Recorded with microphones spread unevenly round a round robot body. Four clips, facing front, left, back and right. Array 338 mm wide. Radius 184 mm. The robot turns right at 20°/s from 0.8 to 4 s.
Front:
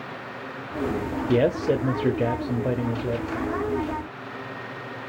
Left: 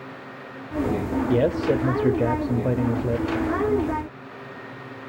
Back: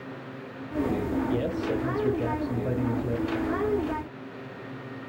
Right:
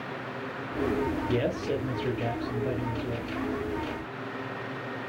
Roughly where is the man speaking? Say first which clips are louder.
Left 7 dB, front 6 dB; ahead left.